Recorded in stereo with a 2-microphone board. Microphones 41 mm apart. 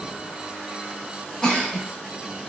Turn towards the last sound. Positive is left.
turn(degrees=20)  # may be behind; listen again after turning